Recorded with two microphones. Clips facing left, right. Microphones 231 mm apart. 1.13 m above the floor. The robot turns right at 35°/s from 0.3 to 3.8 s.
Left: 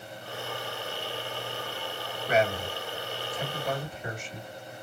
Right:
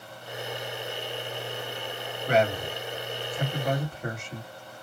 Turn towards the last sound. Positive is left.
turn(degrees=-65)  # may be behind; listen again after turning